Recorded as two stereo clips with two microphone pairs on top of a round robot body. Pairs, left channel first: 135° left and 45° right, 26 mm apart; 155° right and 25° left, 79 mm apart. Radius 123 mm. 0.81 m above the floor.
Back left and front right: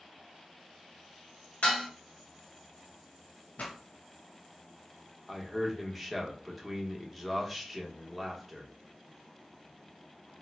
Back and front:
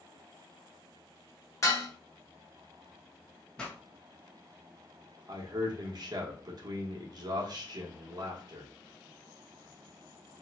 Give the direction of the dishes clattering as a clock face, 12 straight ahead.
7 o'clock.